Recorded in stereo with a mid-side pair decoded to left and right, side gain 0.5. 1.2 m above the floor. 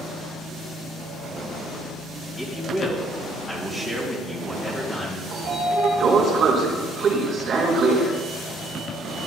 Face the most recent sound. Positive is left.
turn(degrees=-55)